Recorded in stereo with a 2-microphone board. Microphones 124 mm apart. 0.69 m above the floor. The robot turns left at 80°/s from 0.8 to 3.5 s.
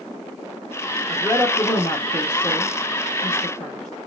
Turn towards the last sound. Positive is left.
turn(degrees=10)  # may be behind; listen again after turning